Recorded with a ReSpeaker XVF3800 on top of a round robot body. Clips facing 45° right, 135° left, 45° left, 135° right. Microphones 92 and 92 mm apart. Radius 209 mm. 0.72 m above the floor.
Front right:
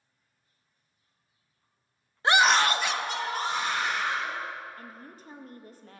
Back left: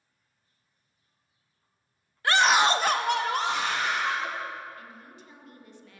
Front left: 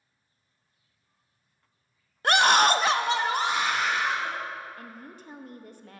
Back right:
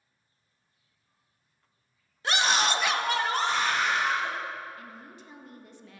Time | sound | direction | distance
2.2 | a scream | 20° left | 0.9 m
4.8 | a woman speaking | 5° left | 1.2 m